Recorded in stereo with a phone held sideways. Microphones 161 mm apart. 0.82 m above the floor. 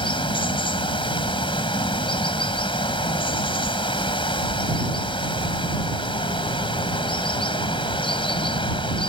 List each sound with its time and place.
0.0 s running water: 35° left (ahead or behind)